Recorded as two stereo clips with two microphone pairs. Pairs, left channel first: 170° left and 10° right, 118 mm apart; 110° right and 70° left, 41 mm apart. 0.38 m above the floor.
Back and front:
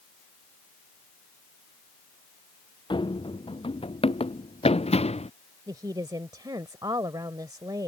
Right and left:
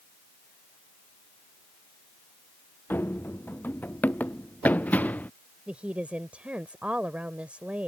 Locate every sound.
2.9 s running footsteps: 140° right; by 5.3 s 160° right
5.7 s a woman speaking: 30° left